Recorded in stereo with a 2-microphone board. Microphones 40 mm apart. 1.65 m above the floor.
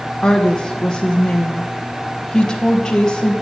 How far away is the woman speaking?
About 2 m.